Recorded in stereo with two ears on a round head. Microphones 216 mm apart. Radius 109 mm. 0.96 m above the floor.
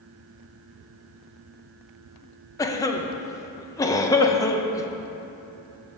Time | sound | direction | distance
2.6 | a cough | 15° left (ahead or behind) | 0.6 m